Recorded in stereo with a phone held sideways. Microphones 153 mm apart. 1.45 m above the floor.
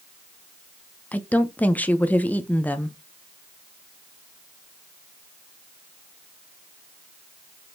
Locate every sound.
1.1 s a woman speaking: 10° left (ahead or behind), 0.5 m